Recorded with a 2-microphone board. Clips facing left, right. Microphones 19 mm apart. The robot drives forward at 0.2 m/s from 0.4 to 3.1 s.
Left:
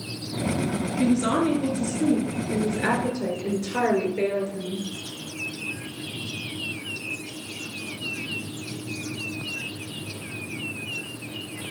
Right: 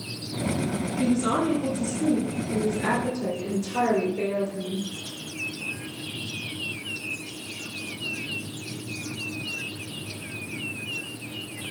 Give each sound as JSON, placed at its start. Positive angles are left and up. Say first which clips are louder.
{"t": 1.0, "sound": "a woman speaking", "louder": "left 2 dB", "side_deg": 60, "distance_m": 3.0}